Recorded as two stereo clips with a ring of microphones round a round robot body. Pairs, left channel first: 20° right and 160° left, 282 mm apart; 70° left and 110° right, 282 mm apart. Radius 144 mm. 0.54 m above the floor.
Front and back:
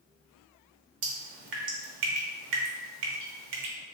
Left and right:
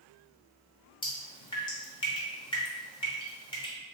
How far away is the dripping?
About 0.9 m.